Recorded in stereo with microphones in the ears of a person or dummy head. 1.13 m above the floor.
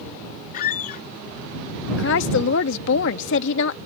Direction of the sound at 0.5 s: 55° left (ahead or behind).